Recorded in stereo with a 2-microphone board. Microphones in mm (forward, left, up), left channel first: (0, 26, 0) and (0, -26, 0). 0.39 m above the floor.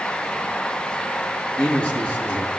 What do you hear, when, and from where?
1.6 s a man speaking: 25° left (ahead or behind), 8.5 m